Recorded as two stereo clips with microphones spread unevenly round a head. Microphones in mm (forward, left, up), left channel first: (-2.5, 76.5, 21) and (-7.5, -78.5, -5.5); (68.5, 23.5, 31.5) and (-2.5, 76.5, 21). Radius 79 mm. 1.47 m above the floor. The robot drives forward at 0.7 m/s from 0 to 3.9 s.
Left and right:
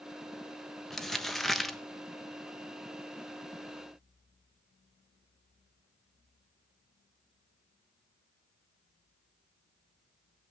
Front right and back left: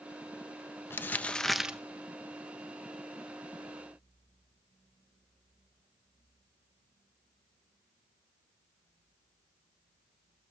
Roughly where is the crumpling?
Ahead.